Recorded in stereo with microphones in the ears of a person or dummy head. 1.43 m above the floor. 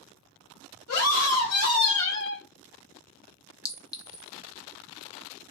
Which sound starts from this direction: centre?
A clink, at 3.6 s.